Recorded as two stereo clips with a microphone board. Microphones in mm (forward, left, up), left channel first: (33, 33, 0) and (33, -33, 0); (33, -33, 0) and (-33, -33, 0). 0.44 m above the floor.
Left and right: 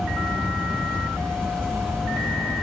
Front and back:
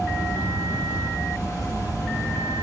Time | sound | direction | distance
0.0 | an insect | 10° left | 1.7 m